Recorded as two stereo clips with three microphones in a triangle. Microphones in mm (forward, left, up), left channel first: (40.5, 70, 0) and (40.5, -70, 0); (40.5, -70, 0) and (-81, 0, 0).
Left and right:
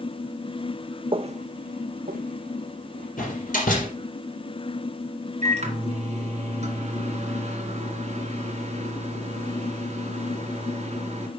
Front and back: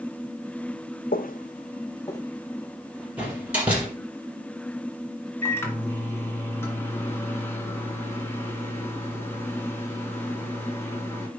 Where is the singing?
No singing in this recording.